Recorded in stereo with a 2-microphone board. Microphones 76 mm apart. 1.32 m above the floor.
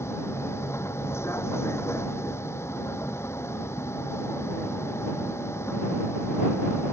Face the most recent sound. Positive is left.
turn(degrees=35)  # may be behind; listen again after turning